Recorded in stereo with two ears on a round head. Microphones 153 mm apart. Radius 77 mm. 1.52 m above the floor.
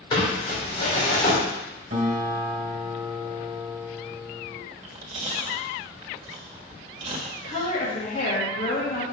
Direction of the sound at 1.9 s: 45° right (ahead or behind).